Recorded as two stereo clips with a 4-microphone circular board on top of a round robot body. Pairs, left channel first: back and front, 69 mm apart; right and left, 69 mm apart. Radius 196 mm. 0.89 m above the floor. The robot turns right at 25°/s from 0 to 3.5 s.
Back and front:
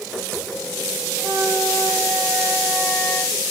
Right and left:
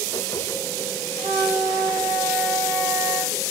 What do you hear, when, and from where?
1.2 s a flute: 35° left, 3.5 m; by 3.4 s 90° left, 3.5 m